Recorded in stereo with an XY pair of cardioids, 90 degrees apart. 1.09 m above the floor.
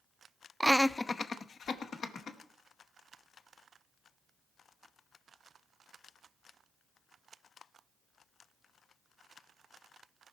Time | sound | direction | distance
0.6 | laughter | 20° right | 0.5 m